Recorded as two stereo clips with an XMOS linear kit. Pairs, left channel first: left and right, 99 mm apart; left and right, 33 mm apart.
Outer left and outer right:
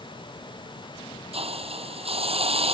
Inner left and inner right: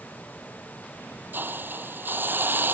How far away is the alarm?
I don't hear an alarm.